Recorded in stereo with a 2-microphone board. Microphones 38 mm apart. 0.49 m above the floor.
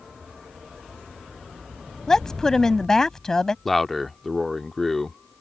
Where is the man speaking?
10° left (ahead or behind).